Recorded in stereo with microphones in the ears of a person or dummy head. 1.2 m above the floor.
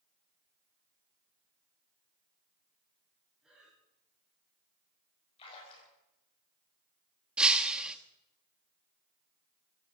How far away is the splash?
About 6 m.